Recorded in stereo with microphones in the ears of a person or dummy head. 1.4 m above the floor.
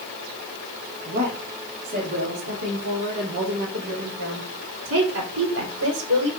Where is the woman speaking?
45° right (ahead or behind), 2.5 m; by 6.3 s 85° right, 3.5 m.